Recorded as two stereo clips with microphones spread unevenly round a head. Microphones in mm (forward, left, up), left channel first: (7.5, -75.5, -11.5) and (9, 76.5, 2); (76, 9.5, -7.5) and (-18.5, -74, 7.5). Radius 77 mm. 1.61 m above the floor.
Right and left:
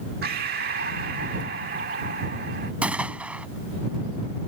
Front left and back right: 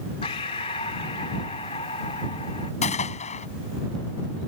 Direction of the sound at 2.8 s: 10° left.